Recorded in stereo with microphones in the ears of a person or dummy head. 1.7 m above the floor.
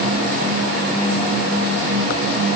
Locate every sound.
Only background noise.